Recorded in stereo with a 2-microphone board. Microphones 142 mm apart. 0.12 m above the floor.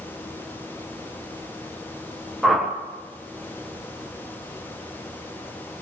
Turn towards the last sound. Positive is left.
turn(degrees=0)  # may be behind; listen again after turning